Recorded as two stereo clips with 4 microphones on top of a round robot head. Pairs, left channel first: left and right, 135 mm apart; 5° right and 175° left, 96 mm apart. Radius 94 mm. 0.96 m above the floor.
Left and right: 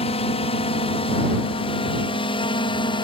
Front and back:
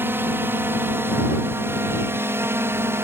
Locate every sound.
0.0 s a drone: 115° left; by 3.0 s 120° left